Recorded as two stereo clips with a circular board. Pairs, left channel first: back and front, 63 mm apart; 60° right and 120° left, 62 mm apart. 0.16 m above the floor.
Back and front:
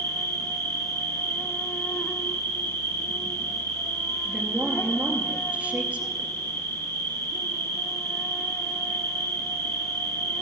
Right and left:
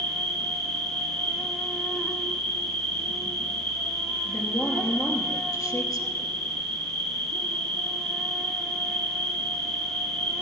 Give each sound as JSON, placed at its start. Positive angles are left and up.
{"t": 0.0, "sound": "an insect", "azimuth_deg": -135, "distance_m": 1.9}
{"t": 4.2, "sound": "a woman speaking", "azimuth_deg": -70, "distance_m": 2.5}